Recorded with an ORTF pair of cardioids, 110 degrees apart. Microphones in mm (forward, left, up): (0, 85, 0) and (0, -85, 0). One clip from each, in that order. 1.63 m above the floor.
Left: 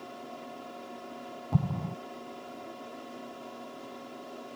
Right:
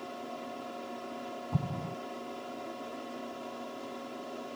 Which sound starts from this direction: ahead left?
An explosion, at 1.5 s.